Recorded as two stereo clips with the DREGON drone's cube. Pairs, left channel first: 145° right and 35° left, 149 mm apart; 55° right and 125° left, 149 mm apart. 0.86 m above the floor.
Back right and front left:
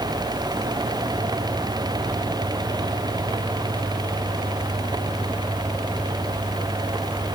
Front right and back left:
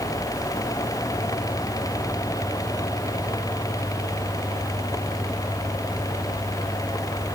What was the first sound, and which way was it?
Only background noise.